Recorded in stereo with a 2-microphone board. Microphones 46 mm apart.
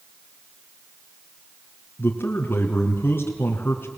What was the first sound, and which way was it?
A man speaking, 50° left (ahead or behind).